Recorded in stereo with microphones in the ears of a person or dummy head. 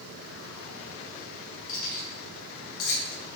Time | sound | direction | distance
1.7 | keys jangling | 50° left (ahead or behind) | 1.9 m